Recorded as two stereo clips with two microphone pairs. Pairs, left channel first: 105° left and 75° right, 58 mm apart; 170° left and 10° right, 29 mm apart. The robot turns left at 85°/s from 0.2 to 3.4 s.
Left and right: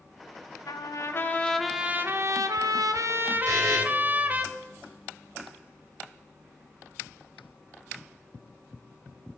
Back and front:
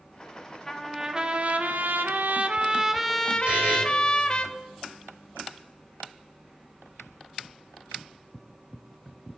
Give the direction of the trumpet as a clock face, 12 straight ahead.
9 o'clock.